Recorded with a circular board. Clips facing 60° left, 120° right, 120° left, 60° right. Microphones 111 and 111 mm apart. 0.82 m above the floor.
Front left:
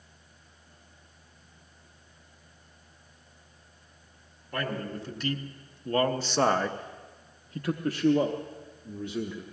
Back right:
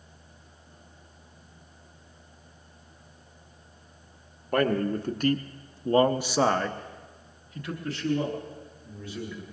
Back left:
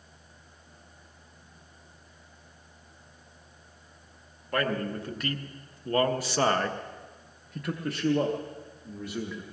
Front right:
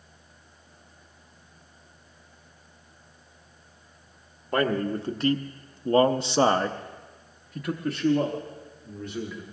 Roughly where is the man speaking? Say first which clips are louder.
Back right 9 dB, front right 4 dB; behind right.